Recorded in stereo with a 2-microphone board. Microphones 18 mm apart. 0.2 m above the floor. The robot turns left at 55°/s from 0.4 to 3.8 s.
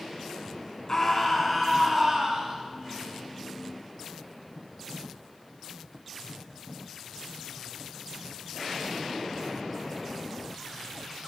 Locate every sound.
0.9 s a scream: 40° left, 1.8 m; by 2.6 s 55° right, 1.8 m